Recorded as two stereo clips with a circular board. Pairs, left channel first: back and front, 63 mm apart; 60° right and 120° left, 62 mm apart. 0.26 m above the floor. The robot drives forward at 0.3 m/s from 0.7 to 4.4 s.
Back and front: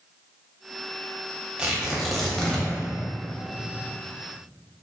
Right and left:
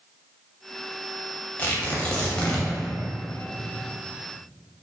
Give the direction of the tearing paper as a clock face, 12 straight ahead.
2 o'clock.